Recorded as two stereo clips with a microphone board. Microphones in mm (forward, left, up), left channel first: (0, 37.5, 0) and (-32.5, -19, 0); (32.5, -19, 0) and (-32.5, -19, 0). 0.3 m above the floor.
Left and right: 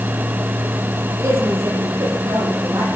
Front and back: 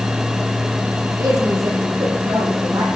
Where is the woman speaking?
155° right, 7.5 m; by 2.9 s 160° right, 9 m.